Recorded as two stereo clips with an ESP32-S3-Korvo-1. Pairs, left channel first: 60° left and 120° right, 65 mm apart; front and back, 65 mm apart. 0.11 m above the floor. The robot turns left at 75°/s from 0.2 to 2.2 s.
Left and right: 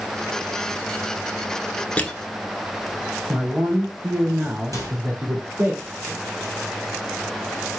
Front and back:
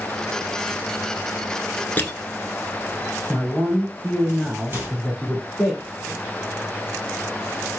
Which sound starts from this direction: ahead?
Crushing, at 2.0 s.